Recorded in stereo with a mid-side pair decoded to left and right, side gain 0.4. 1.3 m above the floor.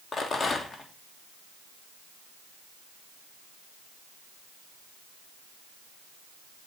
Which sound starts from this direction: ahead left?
A rattle, at 0.1 s.